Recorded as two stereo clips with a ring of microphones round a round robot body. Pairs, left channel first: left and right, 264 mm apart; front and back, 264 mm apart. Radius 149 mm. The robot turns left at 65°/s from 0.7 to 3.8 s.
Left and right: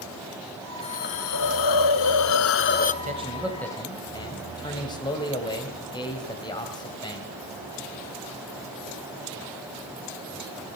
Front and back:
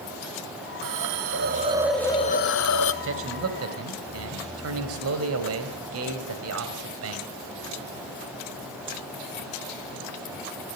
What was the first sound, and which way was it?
A hiss, 160° left.